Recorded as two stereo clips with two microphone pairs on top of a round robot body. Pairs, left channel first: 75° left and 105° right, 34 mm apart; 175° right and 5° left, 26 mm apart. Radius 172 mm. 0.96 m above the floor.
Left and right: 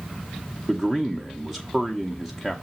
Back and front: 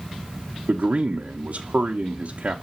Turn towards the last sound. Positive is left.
turn(degrees=-10)